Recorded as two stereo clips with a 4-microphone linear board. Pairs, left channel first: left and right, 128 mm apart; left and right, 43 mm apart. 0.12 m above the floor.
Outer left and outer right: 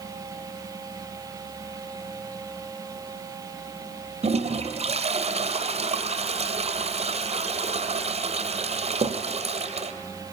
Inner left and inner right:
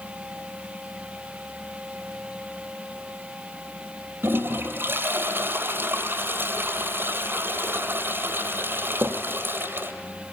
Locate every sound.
4.2 s a toilet flushing: 55° right (ahead or behind), 2 m